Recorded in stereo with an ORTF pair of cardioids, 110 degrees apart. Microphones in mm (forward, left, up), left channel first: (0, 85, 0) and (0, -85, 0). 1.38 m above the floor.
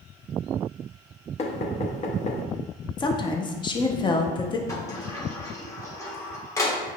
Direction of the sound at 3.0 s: 25° left.